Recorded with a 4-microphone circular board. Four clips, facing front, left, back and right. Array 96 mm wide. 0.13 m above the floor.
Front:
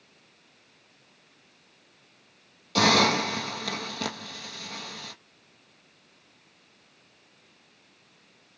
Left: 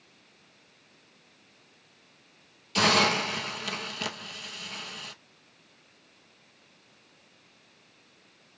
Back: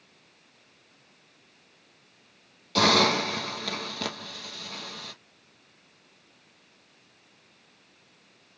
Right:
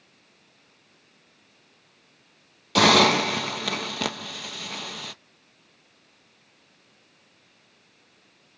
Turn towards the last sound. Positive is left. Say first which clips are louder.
# right 6 dB, even
turn(degrees=-85)